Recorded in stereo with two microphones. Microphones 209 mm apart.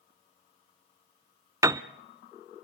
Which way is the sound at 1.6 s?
15° right (ahead or behind).